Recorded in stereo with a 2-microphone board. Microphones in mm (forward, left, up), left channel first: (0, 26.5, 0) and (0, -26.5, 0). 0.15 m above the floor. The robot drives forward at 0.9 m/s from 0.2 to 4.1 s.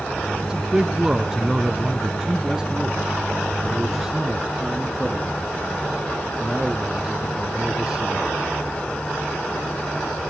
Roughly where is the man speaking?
Centre.